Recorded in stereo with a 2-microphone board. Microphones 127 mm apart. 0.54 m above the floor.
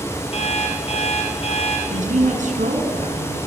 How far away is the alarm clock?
About 8.5 m.